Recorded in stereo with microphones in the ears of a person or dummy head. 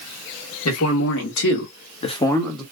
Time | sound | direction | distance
0.7 | a man speaking | 85° left | 1.4 m